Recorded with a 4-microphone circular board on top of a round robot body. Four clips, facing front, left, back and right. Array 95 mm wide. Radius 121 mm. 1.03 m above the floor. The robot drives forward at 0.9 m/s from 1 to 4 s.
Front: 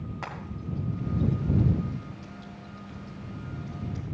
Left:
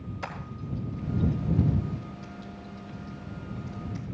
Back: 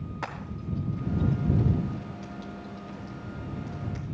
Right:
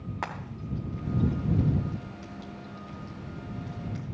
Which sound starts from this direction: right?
Frying, at 0.2 s.